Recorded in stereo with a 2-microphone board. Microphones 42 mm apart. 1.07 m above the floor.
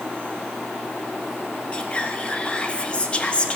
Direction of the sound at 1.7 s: 25° left (ahead or behind).